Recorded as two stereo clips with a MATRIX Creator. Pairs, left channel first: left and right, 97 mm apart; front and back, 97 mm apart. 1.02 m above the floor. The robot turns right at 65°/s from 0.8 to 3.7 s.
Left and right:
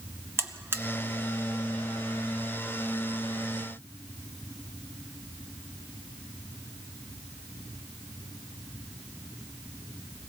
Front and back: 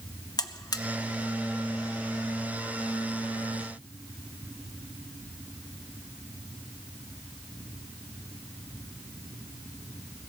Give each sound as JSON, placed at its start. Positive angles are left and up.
{"t": 0.4, "sound": "a buzzer", "azimuth_deg": -30, "distance_m": 0.7}